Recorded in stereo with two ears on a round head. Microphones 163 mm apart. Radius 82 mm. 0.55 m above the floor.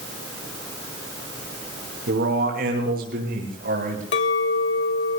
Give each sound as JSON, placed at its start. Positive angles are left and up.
{"t": 2.1, "sound": "a man speaking", "side_deg": -60, "distance_m": 8.5}
{"t": 4.1, "sound": "a clink", "side_deg": 70, "distance_m": 1.7}